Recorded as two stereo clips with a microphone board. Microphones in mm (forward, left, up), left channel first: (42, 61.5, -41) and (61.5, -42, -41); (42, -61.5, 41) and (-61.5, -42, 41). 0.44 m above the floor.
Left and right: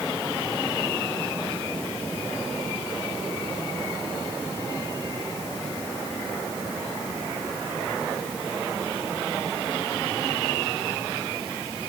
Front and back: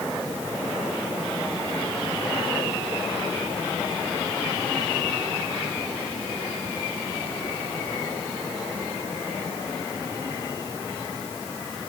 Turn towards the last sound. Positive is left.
No sound to turn to.